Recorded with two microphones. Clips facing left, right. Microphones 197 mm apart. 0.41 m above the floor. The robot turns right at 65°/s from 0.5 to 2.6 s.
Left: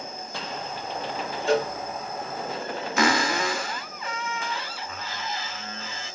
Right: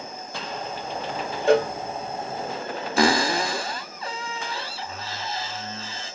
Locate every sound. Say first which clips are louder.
1.5 s a cowbell: right 5 dB; 60° right (ahead or behind), 0.5 m; by 1.7 s 50° right (ahead or behind), 0.5 m
3.0 s a cupboard door: right 3 dB; 30° right (ahead or behind), 0.6 m